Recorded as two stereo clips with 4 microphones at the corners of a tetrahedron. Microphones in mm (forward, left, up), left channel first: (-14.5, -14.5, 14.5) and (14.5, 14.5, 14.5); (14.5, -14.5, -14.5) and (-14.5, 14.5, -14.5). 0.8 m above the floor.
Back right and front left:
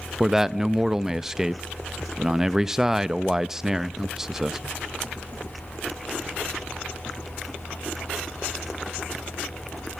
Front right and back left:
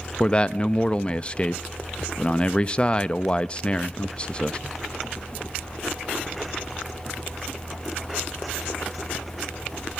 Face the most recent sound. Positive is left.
turn(degrees=-25)